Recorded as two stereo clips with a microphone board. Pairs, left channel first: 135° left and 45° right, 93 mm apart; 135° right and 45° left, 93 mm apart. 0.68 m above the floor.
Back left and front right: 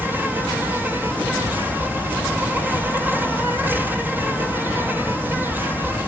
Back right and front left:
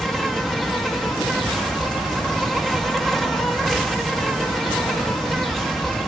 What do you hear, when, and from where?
0.0 s an insect: 55° right, 1.5 m